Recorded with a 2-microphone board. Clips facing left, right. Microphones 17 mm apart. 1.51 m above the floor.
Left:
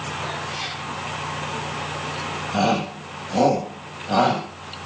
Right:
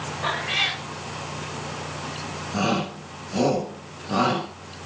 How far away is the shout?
About 8 m.